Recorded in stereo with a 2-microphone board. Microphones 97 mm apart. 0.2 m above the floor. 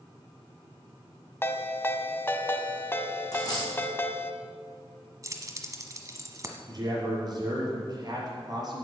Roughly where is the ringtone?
Left.